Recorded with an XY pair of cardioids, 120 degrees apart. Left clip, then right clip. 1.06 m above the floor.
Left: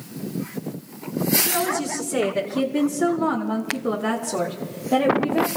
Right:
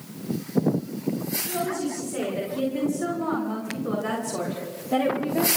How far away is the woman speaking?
About 6 m.